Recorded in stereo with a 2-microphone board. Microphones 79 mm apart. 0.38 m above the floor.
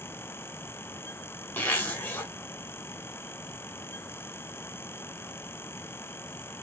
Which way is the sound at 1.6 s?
25° left (ahead or behind).